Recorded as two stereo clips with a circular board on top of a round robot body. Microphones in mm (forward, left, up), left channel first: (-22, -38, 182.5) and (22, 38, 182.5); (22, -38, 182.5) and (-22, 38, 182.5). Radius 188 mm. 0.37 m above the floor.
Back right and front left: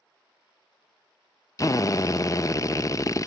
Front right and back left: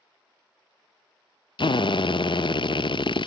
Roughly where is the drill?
Right.